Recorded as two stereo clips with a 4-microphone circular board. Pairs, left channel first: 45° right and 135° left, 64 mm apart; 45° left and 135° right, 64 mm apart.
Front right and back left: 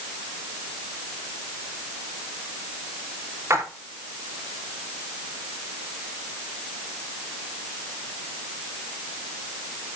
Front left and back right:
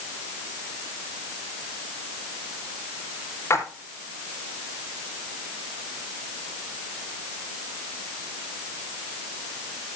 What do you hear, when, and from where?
3.5 s a splash: 90° left, 2.5 m